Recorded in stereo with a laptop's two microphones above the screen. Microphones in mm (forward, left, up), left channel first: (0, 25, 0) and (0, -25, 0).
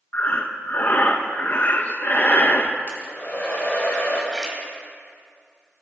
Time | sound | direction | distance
0.1 | breathing | 40° left (ahead or behind) | 1.0 m
2.9 | a hair dryer | 40° left (ahead or behind) | 4 m
4.3 | a splash | 10° left (ahead or behind) | 2.5 m